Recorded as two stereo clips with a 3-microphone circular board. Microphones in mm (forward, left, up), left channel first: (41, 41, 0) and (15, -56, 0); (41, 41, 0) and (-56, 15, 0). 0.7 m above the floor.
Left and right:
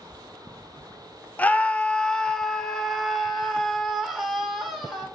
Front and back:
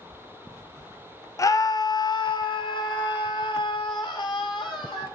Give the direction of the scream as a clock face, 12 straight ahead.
12 o'clock.